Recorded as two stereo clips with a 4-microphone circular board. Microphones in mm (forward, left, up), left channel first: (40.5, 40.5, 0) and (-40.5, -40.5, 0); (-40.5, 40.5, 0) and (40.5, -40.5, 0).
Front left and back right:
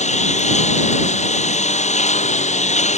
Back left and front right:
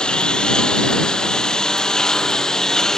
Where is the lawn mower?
55° left; by 3.0 s 50° left.